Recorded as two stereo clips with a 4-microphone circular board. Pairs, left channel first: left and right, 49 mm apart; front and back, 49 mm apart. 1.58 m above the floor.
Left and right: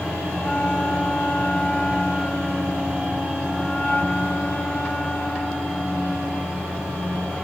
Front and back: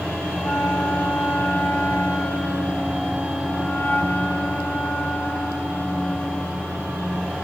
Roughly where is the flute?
Ahead left.